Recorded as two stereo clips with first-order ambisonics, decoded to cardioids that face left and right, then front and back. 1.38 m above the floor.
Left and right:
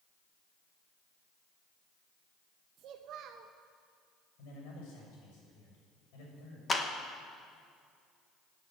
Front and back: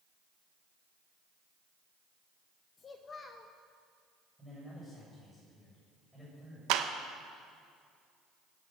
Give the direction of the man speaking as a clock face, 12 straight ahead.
9 o'clock.